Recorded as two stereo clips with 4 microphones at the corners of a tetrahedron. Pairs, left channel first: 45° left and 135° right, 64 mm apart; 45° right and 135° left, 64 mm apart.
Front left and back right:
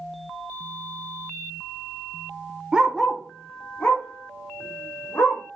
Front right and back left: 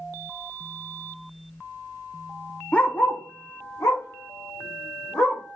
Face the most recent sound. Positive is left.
turn(degrees=-5)